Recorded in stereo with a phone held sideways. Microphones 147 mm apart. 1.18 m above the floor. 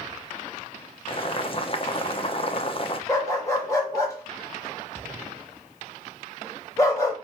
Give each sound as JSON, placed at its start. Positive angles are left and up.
{"t": 1.1, "sound": "boiling", "side_deg": 40, "distance_m": 0.7}
{"t": 3.1, "sound": "a dog barking", "side_deg": 20, "distance_m": 1.6}